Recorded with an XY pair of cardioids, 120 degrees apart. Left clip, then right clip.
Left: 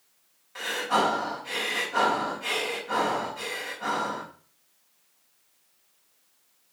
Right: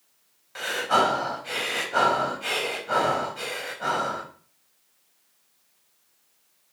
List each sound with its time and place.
0.6 s breathing: 35° right, 4.5 m